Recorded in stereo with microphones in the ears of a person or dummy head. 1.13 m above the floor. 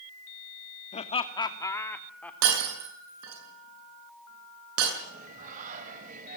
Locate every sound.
0.9 s laughter: 35° left (ahead or behind), 2 m; by 2.3 s 10° left (ahead or behind), 3 m
2.4 s breaking glass: 85° right, 8 m
5.0 s singing: 45° right (ahead or behind), 3.5 m